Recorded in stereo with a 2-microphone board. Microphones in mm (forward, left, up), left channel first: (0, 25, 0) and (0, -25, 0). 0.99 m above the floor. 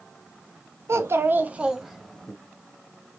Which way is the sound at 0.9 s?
65° right (ahead or behind).